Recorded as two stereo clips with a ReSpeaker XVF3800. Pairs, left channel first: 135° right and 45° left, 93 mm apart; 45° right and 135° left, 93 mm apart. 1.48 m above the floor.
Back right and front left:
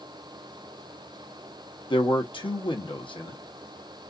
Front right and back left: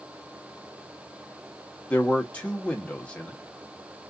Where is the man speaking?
120° right, 0.9 m.